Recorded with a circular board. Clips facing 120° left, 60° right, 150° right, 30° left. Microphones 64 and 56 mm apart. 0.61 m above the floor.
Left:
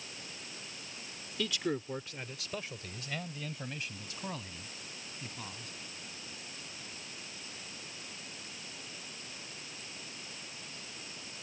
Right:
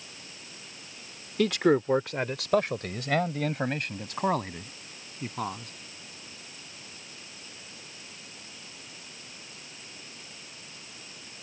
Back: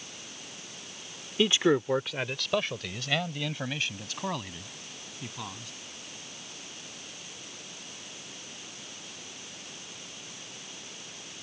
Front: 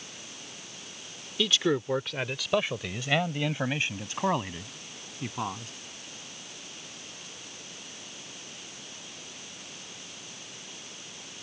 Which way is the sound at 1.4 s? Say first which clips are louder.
Right 12 dB, back 3 dB; 90° right.